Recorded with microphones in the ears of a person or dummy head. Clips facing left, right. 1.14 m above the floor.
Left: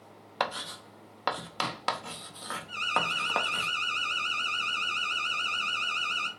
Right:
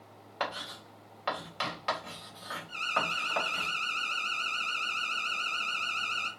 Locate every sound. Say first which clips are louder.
0.4 s writing: left 3 dB; 55° left (ahead or behind), 0.7 m
2.7 s an alarm: left 2 dB; 55° left (ahead or behind), 3 m